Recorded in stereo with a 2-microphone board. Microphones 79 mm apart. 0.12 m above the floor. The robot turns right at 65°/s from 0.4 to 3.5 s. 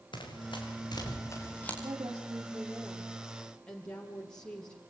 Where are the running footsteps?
90° left, 7.5 m; by 1.7 s 15° left (ahead or behind), 7.5 m.